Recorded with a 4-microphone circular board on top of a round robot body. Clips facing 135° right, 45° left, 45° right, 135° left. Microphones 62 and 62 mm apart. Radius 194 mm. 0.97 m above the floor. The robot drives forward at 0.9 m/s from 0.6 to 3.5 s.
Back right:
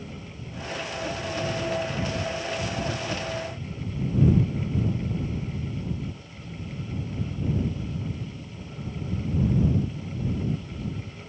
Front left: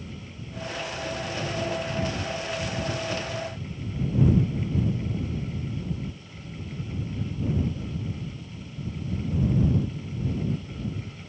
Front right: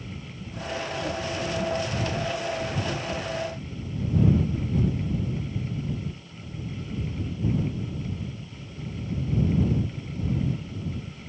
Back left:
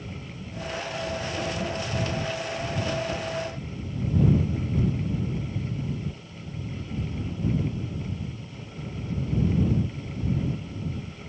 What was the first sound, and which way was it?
Only background noise.